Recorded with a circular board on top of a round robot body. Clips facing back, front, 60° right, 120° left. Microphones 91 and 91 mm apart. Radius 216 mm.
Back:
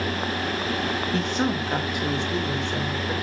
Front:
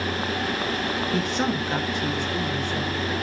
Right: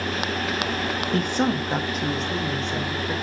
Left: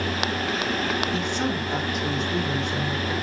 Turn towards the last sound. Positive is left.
turn(degrees=-120)